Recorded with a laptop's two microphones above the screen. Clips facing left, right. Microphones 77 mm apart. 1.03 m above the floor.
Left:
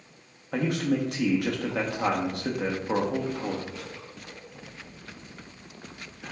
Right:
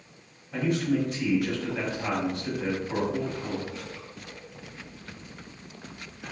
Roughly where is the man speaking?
Left.